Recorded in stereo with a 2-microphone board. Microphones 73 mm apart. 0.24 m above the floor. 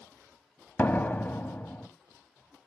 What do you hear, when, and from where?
0.8 s a door slam: 25° left (ahead or behind), 0.9 m